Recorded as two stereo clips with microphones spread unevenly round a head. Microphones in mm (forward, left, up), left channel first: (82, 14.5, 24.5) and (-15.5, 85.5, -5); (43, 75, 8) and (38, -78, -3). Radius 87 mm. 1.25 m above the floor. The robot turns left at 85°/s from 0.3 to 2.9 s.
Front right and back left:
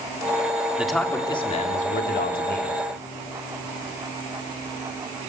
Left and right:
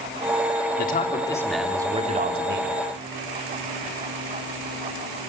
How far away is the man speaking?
About 3.5 m.